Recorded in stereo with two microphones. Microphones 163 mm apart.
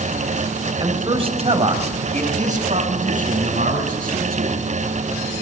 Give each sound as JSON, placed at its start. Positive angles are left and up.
{"t": 0.8, "sound": "a man speaking", "side_deg": -30, "distance_m": 3.0}